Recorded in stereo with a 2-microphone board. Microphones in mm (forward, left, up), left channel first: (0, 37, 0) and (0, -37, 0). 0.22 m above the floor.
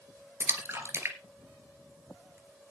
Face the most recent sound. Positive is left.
turn(degrees=-30)  # may be behind; listen again after turning